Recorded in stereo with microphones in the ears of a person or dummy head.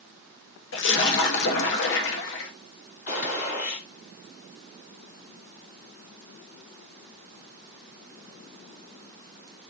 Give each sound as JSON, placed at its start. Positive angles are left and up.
{"t": 0.7, "sound": "a splash", "side_deg": 65, "distance_m": 0.8}
{"t": 3.1, "sound": "a gunshot", "side_deg": 55, "distance_m": 2.0}